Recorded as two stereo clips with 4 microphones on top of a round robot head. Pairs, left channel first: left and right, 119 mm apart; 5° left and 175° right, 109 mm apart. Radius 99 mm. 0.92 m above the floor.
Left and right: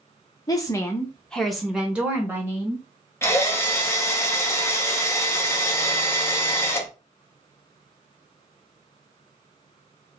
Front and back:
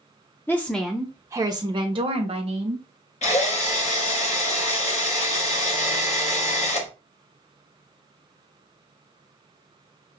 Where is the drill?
20° left, 0.8 m.